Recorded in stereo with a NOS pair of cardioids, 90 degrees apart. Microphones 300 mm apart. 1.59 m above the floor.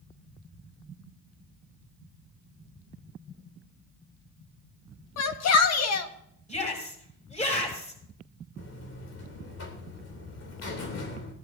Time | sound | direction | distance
5.2 | a shout | 60° left | 1.7 m
6.5 | a shout | 20° left | 6.5 m
8.6 | a buzzer | 55° left | 3 m